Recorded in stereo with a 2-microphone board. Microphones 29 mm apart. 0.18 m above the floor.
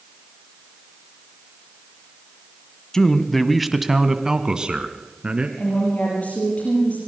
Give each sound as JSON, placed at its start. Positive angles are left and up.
{"t": 2.9, "sound": "a man speaking", "side_deg": 20, "distance_m": 1.1}
{"t": 5.6, "sound": "a woman speaking", "side_deg": 55, "distance_m": 5.5}